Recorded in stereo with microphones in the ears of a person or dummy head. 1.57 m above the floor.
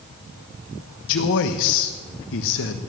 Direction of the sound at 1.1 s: 65° left (ahead or behind).